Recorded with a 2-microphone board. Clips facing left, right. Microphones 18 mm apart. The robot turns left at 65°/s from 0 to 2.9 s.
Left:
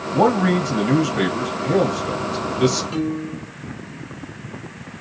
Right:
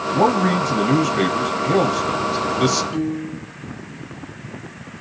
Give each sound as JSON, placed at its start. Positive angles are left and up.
{"t": 0.1, "sound": "a man speaking", "side_deg": 10, "distance_m": 1.2}
{"t": 2.9, "sound": "a piano", "side_deg": 35, "distance_m": 3.0}